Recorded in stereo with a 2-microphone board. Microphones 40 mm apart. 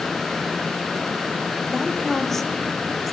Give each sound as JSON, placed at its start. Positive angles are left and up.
{"t": 1.7, "sound": "a woman speaking", "side_deg": 10, "distance_m": 4.0}